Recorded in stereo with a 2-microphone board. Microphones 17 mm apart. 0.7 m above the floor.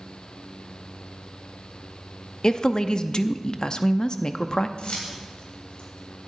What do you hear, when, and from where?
2.4 s a woman speaking: 45° left (ahead or behind), 0.6 m
4.8 s keys jangling: 65° left (ahead or behind), 3 m